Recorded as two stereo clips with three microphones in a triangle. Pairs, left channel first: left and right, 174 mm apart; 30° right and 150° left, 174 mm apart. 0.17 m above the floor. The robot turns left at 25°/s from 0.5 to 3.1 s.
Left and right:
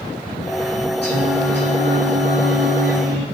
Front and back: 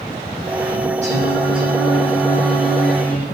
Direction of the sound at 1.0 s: 105° left.